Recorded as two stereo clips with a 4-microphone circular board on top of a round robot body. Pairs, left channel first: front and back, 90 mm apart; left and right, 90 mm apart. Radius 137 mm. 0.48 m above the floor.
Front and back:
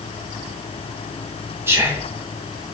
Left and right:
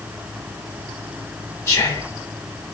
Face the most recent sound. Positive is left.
turn(degrees=135)